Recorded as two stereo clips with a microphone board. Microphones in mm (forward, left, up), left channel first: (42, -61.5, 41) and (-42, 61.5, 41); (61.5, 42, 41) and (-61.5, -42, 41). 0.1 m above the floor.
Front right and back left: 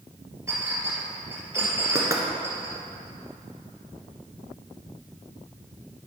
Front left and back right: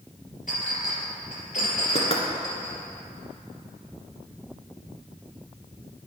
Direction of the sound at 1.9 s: 60° left.